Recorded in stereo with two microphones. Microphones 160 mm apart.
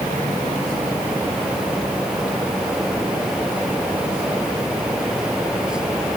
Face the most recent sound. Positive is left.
No sound to turn to.